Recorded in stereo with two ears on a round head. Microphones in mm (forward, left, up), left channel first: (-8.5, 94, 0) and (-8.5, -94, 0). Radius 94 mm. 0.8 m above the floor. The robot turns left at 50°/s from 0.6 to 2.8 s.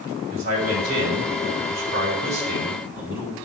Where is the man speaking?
60° right, 4 m; by 3.3 s 170° right, 4 m.